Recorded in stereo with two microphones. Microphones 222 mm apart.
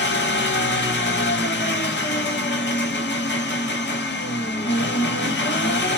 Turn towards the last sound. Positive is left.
turn(degrees=55)  # may be behind; listen again after turning